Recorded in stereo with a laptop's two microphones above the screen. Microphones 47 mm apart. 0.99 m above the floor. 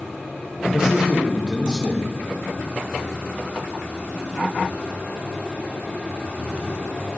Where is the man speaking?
20° right (ahead or behind), 1.3 m.